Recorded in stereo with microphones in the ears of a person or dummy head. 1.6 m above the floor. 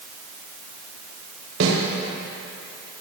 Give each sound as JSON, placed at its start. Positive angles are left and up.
{"t": 1.6, "sound": "a snare drum", "side_deg": -70, "distance_m": 3.5}